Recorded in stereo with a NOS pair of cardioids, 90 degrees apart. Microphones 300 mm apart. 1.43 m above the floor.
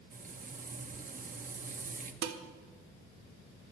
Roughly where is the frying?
Ahead right.